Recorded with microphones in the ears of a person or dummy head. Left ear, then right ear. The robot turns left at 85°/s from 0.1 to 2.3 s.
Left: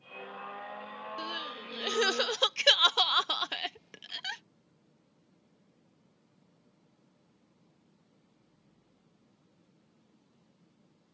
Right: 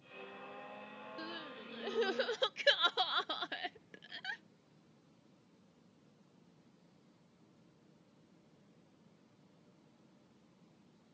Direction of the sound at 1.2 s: 30° left (ahead or behind).